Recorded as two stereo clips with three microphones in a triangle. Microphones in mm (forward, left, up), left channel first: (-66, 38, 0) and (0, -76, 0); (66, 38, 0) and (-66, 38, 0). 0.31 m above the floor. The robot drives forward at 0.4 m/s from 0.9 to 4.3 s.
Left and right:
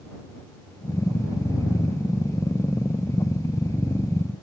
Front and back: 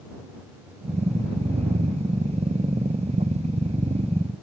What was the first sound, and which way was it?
Only background noise.